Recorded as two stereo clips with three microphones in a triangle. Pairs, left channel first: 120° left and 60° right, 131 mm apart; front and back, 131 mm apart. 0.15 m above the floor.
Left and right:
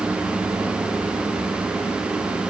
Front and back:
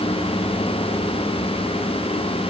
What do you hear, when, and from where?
Only background noise.